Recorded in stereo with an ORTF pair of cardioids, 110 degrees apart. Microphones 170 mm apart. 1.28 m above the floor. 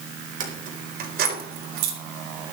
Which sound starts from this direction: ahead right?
Keys jangling, at 0.4 s.